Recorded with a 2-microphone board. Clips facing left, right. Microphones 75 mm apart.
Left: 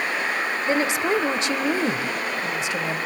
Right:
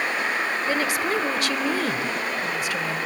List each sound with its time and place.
0.7 s a woman speaking: 20° left (ahead or behind), 0.9 m